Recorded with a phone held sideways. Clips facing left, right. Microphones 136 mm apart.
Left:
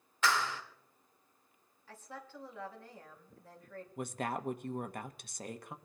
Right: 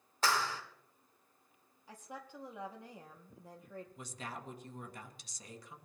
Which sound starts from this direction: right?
A clap, at 0.2 s.